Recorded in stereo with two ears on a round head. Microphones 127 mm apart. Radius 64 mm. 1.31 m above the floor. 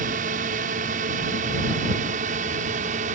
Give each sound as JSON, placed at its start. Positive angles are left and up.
{"t": 0.0, "sound": "a drone", "side_deg": -55}